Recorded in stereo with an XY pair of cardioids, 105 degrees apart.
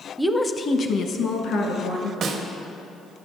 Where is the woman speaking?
5° right, 0.5 m; by 2.1 s 75° left, 1.9 m.